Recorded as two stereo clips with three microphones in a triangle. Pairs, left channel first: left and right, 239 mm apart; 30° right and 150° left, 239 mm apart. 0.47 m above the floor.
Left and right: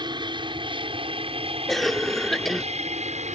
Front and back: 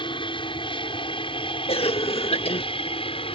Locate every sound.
0.0 s an aircraft: 55° right; by 3.4 s 70° right
1.7 s a cough: straight ahead